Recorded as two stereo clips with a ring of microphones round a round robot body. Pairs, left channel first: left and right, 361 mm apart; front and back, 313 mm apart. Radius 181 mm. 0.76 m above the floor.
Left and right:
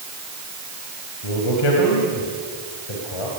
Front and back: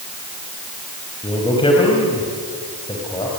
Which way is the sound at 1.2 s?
75° left.